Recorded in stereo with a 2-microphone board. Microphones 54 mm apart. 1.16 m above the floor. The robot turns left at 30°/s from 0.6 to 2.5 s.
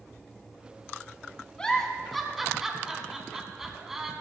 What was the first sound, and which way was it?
A giggle, 15° left (ahead or behind).